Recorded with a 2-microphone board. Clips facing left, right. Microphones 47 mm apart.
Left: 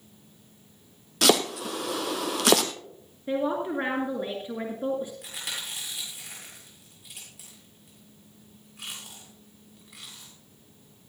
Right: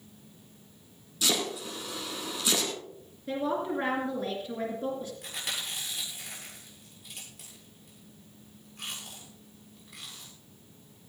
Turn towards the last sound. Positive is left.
turn(degrees=5)  # may be behind; listen again after turning